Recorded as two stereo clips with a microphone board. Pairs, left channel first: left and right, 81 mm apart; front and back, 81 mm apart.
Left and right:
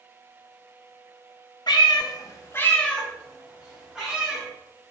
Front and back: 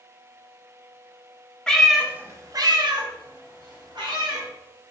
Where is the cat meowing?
80° left, 0.6 m; by 4.4 s 170° right, 1.6 m.